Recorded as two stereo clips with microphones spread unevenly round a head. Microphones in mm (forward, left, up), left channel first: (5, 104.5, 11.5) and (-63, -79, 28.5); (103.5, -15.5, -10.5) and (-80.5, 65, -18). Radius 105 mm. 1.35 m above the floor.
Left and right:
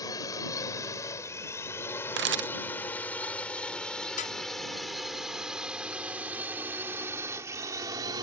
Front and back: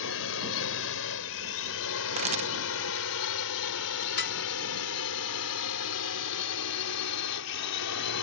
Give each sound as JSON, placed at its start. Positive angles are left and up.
{"t": 0.0, "sound": "a drone", "azimuth_deg": -5}
{"t": 2.2, "sound": "a camera shutter", "azimuth_deg": -145}
{"t": 4.2, "sound": "dishes clattering", "azimuth_deg": 10}